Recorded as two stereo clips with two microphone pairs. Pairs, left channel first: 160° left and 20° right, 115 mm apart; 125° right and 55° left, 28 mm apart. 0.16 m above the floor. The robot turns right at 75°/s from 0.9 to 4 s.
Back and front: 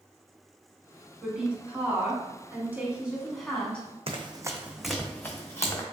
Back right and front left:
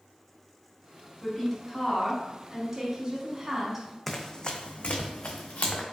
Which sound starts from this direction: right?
A woman speaking, at 1.2 s.